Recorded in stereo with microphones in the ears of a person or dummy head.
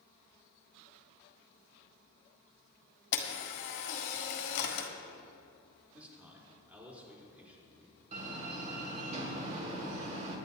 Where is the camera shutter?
60° left (ahead or behind), 1.7 m.